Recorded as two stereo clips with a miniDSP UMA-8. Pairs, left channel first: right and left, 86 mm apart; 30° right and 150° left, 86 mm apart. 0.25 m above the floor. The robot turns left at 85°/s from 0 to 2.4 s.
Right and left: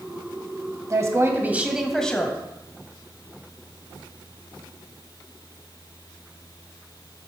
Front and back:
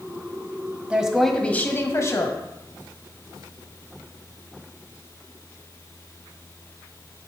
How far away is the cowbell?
I don't hear a cowbell.